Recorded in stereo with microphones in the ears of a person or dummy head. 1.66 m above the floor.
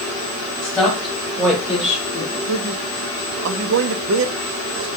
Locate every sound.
0.6 s a woman speaking: 5° left (ahead or behind), 5 m; by 2.4 s 20° right (ahead or behind), 5 m
2.5 s a man speaking: 65° right (ahead or behind), 0.8 m